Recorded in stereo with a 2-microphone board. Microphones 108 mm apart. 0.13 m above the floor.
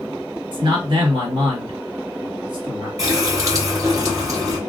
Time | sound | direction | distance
0.5 | a man speaking | 50° right (ahead or behind) | 1.9 m
3.0 | a running tap | 30° right (ahead or behind) | 1.6 m